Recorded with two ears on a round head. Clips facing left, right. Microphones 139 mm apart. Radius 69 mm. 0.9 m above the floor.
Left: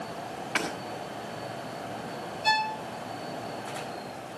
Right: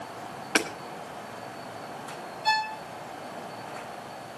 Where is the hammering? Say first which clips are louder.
Right 4 dB; 55° right (ahead or behind), 4 m.